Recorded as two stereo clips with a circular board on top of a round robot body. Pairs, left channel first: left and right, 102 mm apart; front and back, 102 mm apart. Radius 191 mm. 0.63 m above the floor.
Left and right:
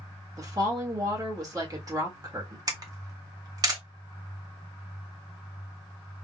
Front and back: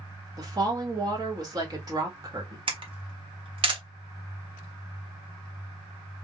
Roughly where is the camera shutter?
Behind right.